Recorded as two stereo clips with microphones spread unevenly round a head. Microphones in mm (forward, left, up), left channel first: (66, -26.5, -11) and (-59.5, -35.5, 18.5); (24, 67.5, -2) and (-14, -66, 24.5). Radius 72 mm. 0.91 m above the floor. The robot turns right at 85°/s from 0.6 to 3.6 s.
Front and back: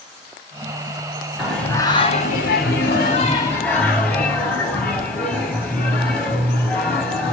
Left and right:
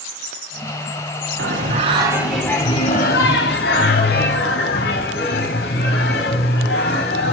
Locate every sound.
1.4 s singing: 95° right, 2.5 m; by 7.3 s 90° left, 2.5 m